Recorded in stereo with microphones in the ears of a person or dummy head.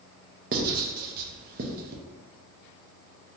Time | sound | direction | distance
0.5 | writing | 50° right (ahead or behind) | 0.6 m